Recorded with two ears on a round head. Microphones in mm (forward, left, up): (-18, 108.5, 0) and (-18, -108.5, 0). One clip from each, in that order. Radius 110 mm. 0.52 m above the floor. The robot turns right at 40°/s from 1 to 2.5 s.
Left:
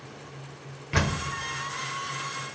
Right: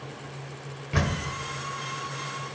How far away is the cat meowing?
No cat meowing in this recording.